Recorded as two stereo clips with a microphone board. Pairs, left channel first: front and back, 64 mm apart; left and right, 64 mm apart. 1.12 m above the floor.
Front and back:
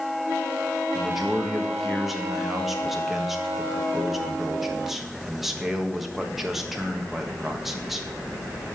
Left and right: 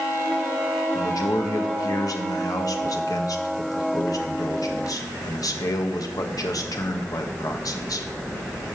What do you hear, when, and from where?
0.9 s a man speaking: 95° left, 1.4 m